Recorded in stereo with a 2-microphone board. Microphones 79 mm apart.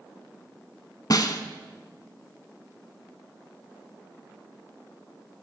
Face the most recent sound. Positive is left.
turn(degrees=50)  # may be behind; listen again after turning